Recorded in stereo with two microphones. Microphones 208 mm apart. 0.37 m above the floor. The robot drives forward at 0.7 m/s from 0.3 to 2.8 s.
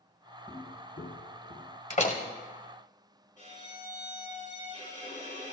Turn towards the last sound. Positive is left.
turn(degrees=40)  # may be behind; listen again after turning